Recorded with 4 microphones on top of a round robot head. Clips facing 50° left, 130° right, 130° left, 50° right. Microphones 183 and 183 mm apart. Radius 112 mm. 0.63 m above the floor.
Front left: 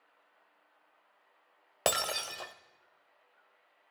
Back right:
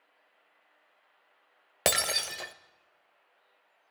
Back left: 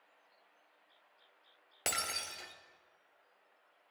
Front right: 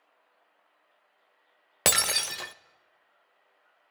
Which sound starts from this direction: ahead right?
Breaking glass, at 1.9 s.